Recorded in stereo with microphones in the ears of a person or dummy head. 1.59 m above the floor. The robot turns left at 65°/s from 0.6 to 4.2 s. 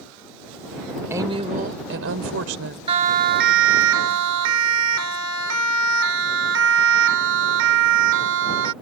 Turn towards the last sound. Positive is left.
turn(degrees=-80)